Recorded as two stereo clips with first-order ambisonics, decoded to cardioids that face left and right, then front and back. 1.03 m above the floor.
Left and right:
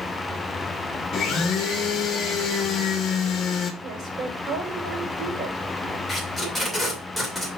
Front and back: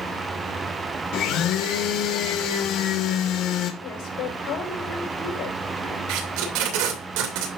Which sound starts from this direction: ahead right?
A woman speaking, at 3.8 s.